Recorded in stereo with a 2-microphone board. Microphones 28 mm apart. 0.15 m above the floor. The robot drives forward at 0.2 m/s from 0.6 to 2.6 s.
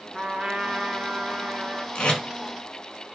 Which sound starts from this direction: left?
Tape being pulled, at 1.9 s.